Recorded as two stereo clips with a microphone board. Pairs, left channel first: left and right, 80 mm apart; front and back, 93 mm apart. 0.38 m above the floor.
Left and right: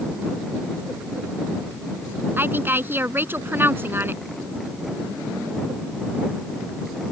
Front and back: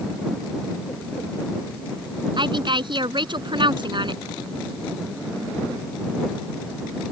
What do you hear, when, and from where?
2.4 s a woman speaking: 150° right